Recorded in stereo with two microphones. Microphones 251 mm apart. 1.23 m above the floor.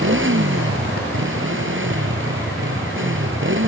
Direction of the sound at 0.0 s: 50° right (ahead or behind).